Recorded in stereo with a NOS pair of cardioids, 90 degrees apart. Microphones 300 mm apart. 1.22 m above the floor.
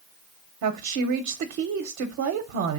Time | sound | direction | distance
0.6 | a woman speaking | 65° right | 0.8 m